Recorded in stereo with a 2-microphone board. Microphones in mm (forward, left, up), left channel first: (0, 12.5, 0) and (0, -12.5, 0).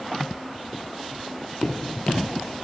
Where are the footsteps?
55° left (ahead or behind), 1.9 m.